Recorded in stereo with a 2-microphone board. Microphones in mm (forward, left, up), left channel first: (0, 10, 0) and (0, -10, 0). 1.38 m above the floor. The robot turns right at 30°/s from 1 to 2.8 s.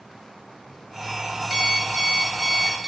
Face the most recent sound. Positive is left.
turn(degrees=-45)